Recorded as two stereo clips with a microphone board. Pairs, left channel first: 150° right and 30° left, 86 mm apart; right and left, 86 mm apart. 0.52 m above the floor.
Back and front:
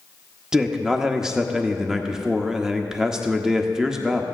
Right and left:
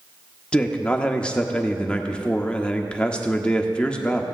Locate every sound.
0.5 s a man speaking: 40° right, 0.7 m